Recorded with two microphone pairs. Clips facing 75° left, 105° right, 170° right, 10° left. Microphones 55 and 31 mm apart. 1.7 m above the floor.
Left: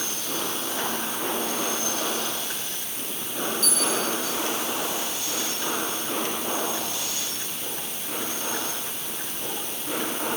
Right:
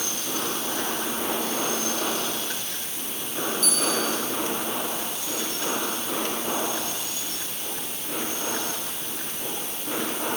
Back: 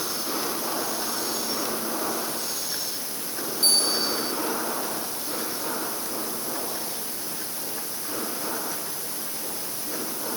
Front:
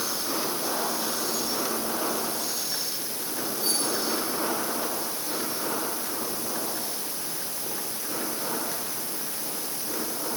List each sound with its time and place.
3.6 s a bell: 165° left, 9 m